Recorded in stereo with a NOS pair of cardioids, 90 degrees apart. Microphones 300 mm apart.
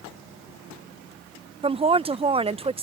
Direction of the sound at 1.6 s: 20° right.